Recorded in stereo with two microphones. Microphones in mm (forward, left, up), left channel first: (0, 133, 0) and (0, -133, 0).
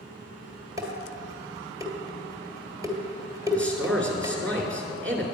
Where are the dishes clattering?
15° right (ahead or behind), 1.8 m.